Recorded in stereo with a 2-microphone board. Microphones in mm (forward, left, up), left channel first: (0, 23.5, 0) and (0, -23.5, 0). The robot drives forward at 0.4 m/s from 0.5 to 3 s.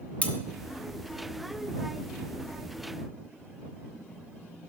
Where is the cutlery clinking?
30° left (ahead or behind), 1.0 m.